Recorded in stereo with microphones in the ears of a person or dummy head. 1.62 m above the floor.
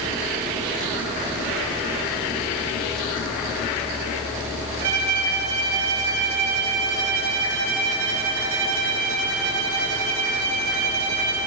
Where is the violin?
80° right, 4 m.